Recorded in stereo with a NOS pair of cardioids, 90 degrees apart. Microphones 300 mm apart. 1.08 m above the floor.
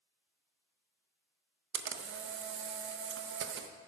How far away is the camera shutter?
About 0.8 m.